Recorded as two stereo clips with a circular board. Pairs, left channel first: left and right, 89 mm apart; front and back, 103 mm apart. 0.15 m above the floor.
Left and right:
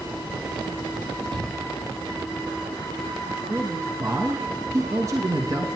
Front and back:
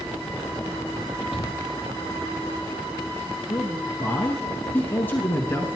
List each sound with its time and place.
1.3 s a shout: 95° right, 5 m
3.5 s a man speaking: 60° right, 1.4 m